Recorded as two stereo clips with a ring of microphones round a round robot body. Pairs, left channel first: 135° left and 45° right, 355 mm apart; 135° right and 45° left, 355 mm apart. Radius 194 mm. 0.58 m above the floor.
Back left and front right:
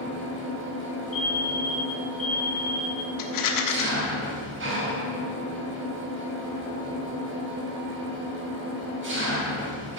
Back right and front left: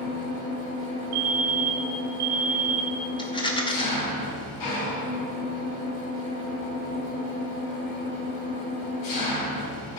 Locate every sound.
0.0 s an engine running: 105° right, 3.5 m
1.1 s a fire alarm: 20° left, 3 m
3.2 s a rattle: 150° left, 1.3 m